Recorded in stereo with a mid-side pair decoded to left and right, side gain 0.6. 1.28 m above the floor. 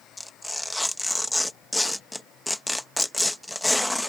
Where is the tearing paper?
5° left.